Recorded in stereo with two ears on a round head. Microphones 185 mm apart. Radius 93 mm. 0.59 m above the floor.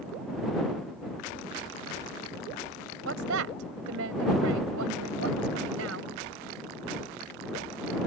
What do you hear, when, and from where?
3.0 s a woman speaking: 75° right (ahead or behind)